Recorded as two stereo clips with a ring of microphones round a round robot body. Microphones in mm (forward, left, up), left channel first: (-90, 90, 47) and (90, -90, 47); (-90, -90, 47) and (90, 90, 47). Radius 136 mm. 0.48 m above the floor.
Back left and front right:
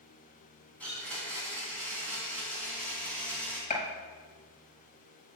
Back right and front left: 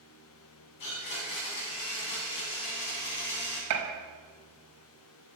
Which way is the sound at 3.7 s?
70° left.